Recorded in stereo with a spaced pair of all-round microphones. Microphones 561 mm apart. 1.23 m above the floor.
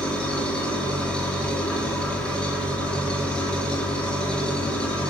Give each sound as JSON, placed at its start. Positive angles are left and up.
{"t": 0.0, "sound": "an engine running", "side_deg": 0, "distance_m": 2.5}